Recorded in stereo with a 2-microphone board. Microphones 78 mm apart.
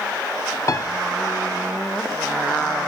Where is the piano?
45° left (ahead or behind), 0.7 m.